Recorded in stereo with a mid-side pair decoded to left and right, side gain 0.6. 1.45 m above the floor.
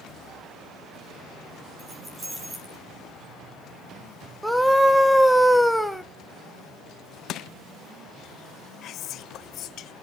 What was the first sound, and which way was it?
Keys jangling, 30° right.